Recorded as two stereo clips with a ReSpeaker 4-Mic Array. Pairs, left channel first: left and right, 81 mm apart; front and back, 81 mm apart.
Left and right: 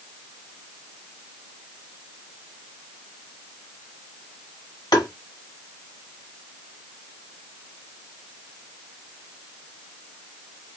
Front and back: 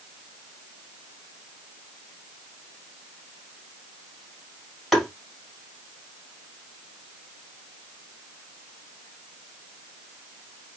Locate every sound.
4.9 s tapping: 90° left, 1.8 m